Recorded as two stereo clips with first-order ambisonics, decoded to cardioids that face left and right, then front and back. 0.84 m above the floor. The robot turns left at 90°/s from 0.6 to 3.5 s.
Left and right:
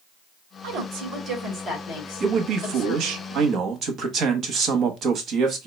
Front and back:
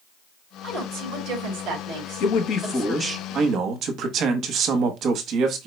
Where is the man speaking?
25° right, 1.0 m; by 5.7 s 140° right, 1.0 m.